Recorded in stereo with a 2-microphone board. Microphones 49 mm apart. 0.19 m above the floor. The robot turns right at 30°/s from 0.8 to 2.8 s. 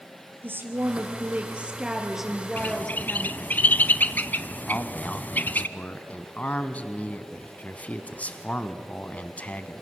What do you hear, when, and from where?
0.4 s a woman speaking: 50° right, 3.5 m; by 3.4 s 10° left, 3.5 m
2.6 s a bird: 35° left (ahead or behind), 0.6 m
4.7 s a man speaking: 30° left (ahead or behind), 1.5 m